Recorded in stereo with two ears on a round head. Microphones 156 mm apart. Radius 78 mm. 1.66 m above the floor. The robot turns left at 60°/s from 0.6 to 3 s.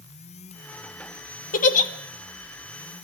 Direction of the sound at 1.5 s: 50° left (ahead or behind).